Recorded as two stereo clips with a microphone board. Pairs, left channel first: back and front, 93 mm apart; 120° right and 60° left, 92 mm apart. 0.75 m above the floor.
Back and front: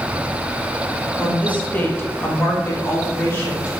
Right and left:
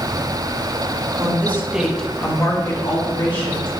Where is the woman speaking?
105° left, 1.4 m; by 3.7 s 115° right, 2.5 m.